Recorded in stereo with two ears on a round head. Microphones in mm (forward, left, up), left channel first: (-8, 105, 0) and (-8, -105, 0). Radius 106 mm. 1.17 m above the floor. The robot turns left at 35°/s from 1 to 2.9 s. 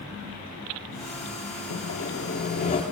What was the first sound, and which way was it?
Sawing, 65° left.